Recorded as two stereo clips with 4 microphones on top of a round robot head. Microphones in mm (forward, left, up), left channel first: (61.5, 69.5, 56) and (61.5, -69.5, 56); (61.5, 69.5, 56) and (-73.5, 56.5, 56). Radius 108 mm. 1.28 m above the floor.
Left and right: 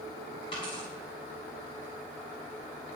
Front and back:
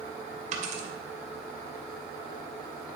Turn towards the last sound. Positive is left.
turn(degrees=155)